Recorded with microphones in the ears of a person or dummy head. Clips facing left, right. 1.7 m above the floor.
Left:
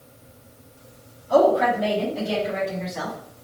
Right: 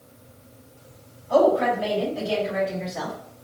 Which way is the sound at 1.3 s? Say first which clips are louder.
Left 1 dB; 10° left (ahead or behind).